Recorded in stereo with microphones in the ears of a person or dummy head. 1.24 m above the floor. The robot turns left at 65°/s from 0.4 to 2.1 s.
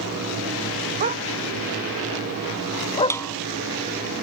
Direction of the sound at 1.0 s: 45° right (ahead or behind).